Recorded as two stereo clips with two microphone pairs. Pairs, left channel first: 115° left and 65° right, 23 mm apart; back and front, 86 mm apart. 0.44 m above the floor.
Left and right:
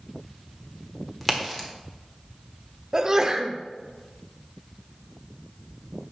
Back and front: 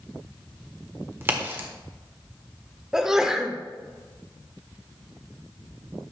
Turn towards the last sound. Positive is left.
turn(degrees=-75)